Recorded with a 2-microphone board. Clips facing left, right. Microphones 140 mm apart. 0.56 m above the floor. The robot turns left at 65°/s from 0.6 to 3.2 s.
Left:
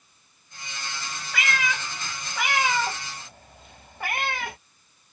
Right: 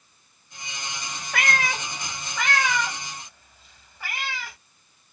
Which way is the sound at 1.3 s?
55° right (ahead or behind).